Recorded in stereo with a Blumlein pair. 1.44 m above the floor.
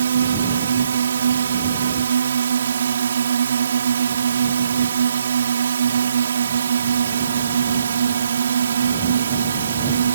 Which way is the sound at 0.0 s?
65° right.